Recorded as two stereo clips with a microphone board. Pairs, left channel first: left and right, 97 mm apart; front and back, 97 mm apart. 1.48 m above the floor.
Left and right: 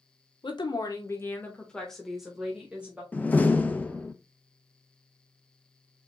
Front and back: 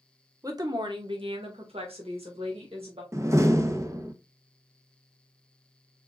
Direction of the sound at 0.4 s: 125° left.